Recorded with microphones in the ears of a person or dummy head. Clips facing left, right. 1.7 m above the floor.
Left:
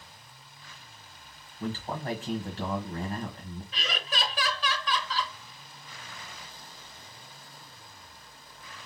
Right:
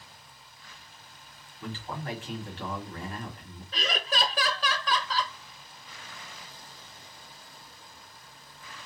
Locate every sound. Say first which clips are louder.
1.6 s a man speaking: left 4 dB; 40° left (ahead or behind), 1.7 m
3.7 s laughter: right 5 dB; 40° right (ahead or behind), 0.6 m